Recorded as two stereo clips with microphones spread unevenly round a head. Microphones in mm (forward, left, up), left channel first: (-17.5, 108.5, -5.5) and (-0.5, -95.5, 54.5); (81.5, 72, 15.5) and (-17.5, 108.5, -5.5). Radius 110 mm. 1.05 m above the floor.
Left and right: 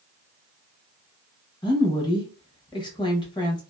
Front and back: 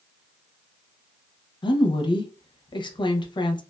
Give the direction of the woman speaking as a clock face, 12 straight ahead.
11 o'clock.